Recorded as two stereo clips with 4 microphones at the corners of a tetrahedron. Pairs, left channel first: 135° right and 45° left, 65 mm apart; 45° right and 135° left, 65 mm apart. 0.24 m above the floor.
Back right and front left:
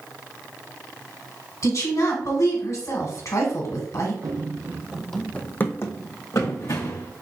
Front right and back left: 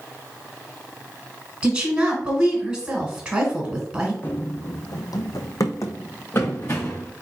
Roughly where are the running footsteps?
Ahead.